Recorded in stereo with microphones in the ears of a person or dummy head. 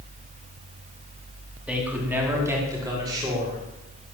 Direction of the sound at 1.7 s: 5° right (ahead or behind).